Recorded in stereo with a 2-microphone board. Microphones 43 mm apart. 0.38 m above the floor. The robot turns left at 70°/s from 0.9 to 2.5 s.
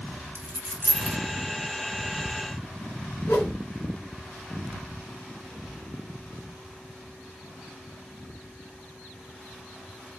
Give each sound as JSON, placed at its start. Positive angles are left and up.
{"t": 0.3, "sound": "a dropped coin", "side_deg": -45, "distance_m": 2.5}
{"t": 3.3, "sound": "a whoosh", "side_deg": 75, "distance_m": 4.0}